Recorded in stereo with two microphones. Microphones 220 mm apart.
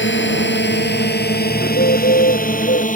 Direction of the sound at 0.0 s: 55° left (ahead or behind).